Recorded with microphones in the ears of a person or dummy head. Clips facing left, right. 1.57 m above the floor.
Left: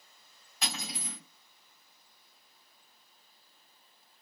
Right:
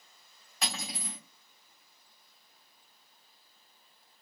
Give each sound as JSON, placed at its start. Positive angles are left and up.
{"t": 0.6, "sound": "cutlery clinking", "side_deg": -80, "distance_m": 3.0}